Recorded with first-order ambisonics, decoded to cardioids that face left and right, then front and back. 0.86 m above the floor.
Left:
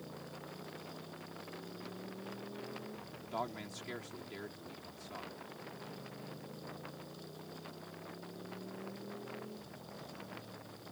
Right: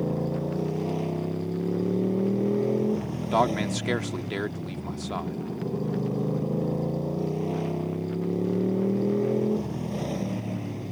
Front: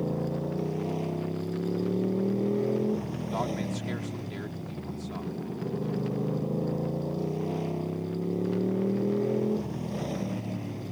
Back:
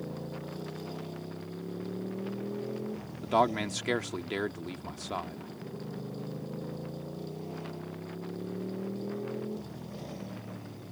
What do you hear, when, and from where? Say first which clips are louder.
0.0 s a motorcycle: right 20 dB, front 9 dB; 60° right
3.2 s a man speaking: right 17 dB, back 9 dB; 125° right